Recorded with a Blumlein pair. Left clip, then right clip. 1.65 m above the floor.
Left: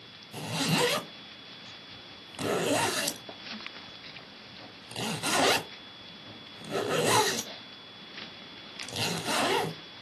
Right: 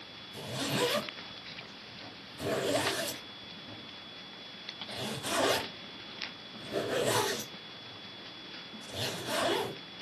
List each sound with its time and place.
0.3 s a zipper: 35° left, 0.9 m